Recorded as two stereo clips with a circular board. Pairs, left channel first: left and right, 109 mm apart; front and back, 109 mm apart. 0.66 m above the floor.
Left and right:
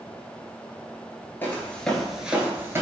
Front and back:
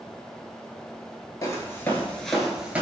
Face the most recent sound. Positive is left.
turn(degrees=-120)